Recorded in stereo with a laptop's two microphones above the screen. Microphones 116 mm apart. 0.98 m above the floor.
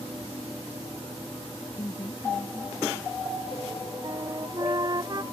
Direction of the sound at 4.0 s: 35° right (ahead or behind).